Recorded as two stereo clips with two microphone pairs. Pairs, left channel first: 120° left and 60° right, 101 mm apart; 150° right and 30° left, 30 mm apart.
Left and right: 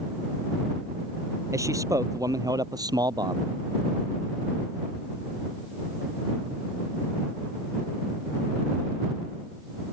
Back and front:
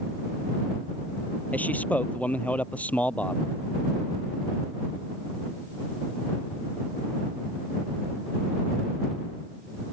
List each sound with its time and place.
1.5 s a man speaking: 120° right; by 3.5 s 110° right